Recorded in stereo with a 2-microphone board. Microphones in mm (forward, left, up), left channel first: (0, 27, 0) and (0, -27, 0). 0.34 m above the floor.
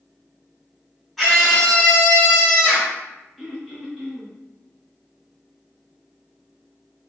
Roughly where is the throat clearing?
Centre.